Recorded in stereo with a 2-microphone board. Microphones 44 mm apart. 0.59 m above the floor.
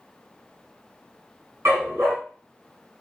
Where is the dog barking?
80° right, 2.5 m.